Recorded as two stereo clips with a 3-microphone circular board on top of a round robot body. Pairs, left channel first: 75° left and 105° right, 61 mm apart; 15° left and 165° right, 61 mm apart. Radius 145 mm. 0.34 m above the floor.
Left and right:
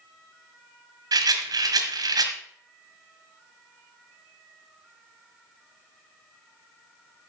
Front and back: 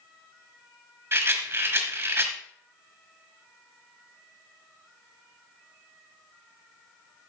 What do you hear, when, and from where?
1.1 s a rattle: 115° right, 1.5 m